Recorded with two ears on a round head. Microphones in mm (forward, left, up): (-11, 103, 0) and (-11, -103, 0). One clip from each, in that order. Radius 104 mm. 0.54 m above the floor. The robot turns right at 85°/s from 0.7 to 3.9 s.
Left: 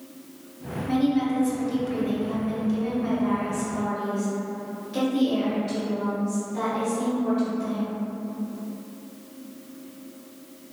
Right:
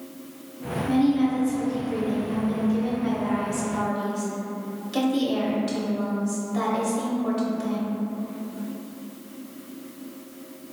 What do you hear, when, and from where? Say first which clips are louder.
0.9 s a woman speaking: right 1 dB; 5° right, 1.0 m; by 7.9 s 105° right, 1.0 m